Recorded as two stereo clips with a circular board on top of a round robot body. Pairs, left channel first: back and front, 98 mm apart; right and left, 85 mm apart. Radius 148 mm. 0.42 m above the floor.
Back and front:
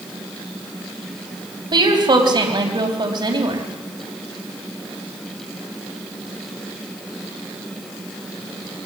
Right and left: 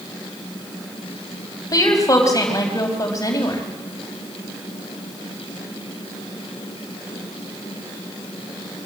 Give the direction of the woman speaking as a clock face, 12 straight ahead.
1 o'clock.